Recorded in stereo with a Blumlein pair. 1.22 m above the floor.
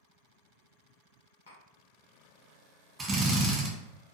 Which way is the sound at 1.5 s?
65° left.